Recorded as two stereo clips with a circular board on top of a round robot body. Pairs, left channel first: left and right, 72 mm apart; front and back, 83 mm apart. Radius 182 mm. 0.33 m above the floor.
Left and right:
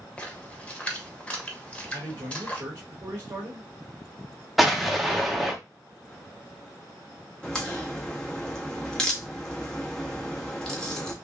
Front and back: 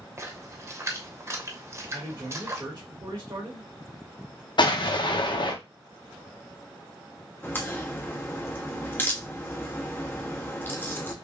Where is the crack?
20° left, 1.4 m.